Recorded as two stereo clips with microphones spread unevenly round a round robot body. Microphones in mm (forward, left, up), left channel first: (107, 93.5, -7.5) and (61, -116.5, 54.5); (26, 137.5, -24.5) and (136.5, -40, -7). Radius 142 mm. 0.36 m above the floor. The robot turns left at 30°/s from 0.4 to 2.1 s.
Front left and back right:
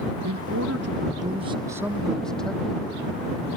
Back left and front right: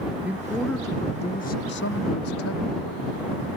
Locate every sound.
0.2 s a man speaking: 145° right; by 3.5 s 165° left